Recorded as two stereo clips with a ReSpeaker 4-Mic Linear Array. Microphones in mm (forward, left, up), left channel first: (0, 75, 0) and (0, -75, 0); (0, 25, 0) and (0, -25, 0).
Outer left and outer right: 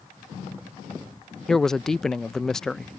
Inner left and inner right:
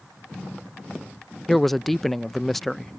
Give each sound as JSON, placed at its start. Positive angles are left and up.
{"t": 1.5, "sound": "a man speaking", "side_deg": 5}